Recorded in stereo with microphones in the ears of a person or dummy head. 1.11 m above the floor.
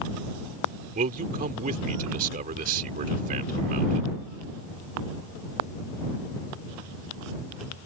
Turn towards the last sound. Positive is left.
turn(degrees=-45)  # may be behind; listen again after turning